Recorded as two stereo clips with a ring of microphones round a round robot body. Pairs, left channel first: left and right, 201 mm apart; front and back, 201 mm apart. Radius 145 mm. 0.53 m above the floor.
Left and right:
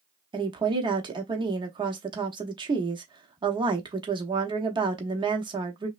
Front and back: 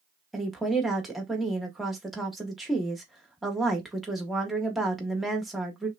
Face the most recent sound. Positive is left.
turn(degrees=-90)